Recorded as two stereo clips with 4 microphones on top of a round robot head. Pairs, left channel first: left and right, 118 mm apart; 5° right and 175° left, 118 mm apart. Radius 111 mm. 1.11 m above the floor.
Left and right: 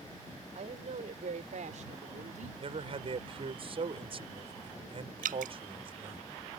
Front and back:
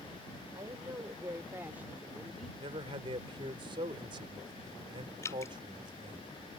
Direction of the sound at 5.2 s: 80° right.